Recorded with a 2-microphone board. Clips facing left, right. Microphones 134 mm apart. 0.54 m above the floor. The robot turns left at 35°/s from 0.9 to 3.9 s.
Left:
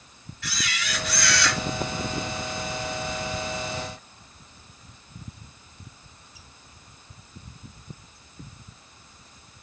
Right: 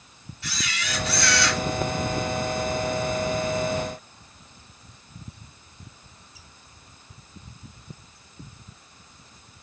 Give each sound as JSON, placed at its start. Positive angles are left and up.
{"t": 0.4, "sound": "a camera shutter", "side_deg": -30, "distance_m": 1.5}